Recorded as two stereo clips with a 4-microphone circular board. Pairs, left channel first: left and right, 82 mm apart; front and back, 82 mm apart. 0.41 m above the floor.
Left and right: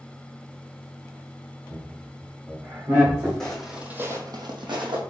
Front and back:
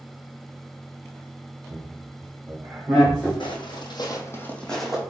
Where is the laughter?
130° right, 2.0 m; by 3.3 s 75° right, 1.2 m.